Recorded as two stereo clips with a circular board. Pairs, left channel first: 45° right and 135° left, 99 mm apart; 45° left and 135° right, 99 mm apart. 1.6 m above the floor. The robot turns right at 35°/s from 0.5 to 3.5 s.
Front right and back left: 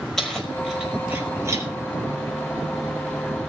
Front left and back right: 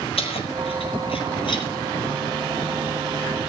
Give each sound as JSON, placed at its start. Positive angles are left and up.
{"t": 0.2, "sound": "keys jangling", "azimuth_deg": 40, "distance_m": 5.0}